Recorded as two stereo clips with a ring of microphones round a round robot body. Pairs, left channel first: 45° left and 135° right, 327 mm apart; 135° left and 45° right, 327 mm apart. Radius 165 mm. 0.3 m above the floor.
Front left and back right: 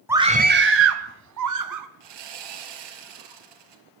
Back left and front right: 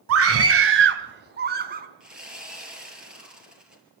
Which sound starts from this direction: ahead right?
A scream, at 0.1 s.